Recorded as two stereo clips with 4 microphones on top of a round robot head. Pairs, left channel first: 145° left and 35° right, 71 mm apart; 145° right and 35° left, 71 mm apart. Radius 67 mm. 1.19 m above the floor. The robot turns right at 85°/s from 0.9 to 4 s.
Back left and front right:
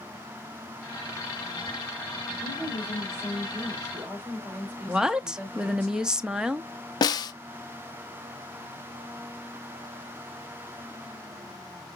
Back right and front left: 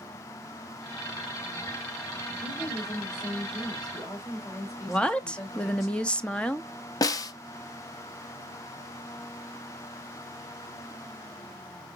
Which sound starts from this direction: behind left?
A woman speaking, at 2.4 s.